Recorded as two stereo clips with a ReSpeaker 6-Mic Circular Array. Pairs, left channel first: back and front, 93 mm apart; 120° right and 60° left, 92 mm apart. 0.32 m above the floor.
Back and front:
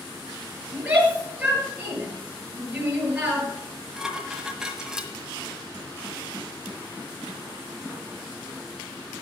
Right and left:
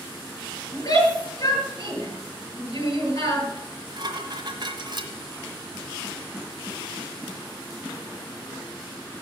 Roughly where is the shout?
Right.